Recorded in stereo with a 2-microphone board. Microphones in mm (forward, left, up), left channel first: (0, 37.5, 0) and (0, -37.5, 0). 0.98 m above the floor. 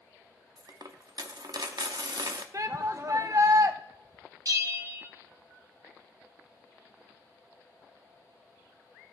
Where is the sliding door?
No sliding door in this recording.